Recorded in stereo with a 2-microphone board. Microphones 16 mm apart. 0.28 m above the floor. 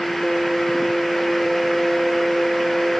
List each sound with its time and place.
Only background noise.